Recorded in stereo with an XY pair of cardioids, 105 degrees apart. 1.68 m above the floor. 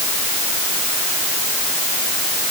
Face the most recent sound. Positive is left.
No sound to turn to.